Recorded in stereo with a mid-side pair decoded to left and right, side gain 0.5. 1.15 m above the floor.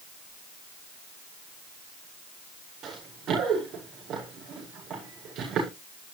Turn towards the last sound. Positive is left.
turn(degrees=-60)